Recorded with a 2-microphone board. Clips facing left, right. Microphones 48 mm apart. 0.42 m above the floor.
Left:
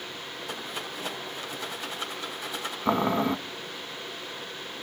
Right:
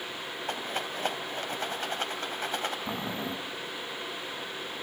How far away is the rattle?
About 3 m.